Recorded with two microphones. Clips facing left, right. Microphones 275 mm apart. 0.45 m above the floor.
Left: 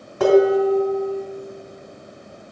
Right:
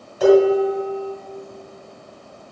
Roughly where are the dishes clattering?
Left.